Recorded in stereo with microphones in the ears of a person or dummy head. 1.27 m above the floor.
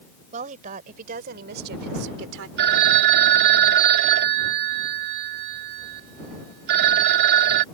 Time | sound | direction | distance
0.3 | a woman speaking | 45° right (ahead or behind) | ?
2.6 | a phone ringing | 60° right (ahead or behind) | ?